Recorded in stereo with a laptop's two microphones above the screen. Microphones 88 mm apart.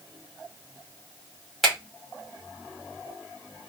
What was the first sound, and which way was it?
A finger snap, centre (ahead or behind).